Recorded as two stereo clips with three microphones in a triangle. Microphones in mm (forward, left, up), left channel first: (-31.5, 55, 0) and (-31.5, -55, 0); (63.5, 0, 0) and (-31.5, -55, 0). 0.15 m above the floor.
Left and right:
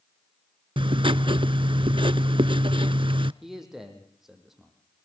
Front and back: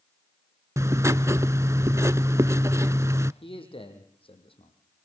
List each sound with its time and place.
0.8 s writing: 90° right, 0.7 m
3.4 s a man speaking: 5° right, 5 m